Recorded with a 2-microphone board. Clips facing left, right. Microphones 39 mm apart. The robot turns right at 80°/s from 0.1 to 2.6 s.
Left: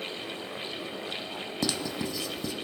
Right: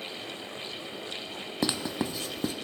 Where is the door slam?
No door slam in this recording.